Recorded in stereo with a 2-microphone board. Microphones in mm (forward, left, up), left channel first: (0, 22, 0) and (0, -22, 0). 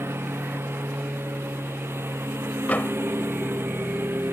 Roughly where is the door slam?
Left.